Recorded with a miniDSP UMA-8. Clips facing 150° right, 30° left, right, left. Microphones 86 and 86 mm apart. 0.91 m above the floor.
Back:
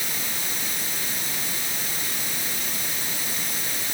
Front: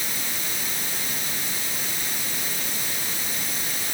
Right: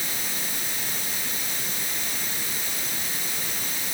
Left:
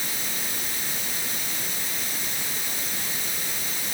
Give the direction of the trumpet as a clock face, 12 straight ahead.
I don't hear a trumpet.